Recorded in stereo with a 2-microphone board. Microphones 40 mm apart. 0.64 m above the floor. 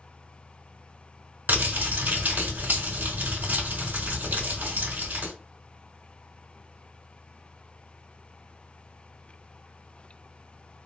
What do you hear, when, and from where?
1.5 s crumpling: 55° right (ahead or behind), 1.7 m